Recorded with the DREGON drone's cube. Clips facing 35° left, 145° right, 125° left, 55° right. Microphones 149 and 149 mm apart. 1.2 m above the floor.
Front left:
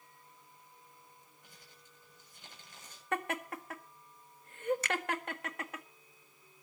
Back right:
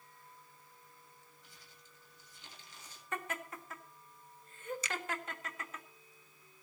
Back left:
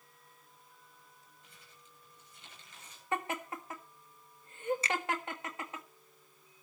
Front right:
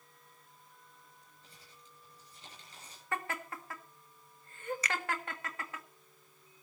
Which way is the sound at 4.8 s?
60° left.